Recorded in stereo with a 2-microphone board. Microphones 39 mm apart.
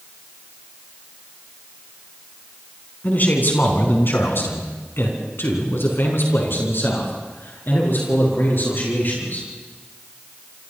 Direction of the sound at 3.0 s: 45° left (ahead or behind).